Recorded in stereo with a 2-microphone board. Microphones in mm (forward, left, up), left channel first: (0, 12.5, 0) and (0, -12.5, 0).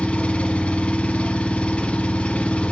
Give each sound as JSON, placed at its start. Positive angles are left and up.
{"t": 0.0, "sound": "an engine running", "side_deg": 55, "distance_m": 1.0}